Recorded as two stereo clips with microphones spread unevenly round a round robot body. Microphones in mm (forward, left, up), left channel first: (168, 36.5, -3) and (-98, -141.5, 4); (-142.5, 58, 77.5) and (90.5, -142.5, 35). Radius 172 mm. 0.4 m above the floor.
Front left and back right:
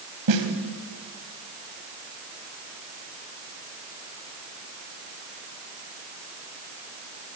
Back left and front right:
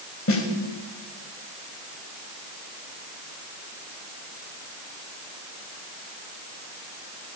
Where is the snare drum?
175° right, 3.5 m.